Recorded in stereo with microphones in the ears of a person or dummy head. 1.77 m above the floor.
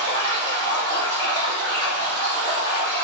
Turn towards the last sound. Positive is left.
turn(degrees=-25)  # may be behind; listen again after turning